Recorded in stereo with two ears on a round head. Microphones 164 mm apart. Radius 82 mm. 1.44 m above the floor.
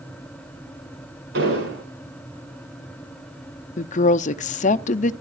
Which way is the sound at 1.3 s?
60° right (ahead or behind).